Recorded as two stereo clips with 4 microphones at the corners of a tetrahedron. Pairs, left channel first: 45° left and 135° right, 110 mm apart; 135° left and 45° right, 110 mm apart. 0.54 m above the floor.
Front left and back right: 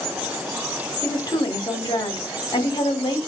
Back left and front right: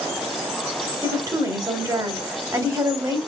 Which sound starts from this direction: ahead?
A woman speaking, at 1.0 s.